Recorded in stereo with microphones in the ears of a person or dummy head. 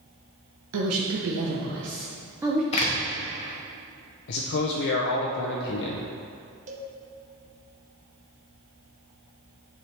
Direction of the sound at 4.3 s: 65° left (ahead or behind).